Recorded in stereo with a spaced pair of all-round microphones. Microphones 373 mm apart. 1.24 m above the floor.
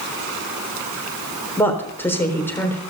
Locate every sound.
1.6 s a woman speaking: 5° left (ahead or behind), 3.5 m